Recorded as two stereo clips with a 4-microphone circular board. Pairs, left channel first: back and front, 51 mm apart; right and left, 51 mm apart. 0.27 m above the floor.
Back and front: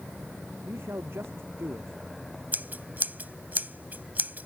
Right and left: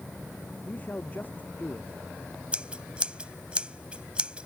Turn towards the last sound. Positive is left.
turn(degrees=30)